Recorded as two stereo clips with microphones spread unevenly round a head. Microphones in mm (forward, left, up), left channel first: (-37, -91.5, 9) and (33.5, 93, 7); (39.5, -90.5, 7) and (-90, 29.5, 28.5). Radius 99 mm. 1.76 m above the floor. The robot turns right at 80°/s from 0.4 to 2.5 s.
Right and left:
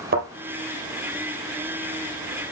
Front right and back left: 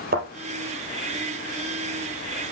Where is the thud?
105° left, 3.5 m.